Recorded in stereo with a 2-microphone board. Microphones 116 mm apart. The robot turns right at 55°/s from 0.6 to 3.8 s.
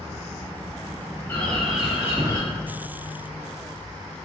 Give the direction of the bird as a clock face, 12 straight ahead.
7 o'clock.